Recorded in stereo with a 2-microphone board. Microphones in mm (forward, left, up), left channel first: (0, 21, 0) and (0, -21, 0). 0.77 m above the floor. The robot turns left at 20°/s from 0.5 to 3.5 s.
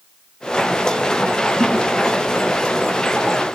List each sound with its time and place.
1.6 s a thud: 65° right (ahead or behind), 7 m